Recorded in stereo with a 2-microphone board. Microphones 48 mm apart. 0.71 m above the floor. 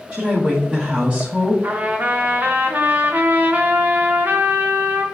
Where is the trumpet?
40° right (ahead or behind), 0.7 m.